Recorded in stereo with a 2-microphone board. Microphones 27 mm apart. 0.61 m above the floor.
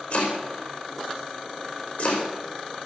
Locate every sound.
0.1 s chopping: 55° left (ahead or behind), 5 m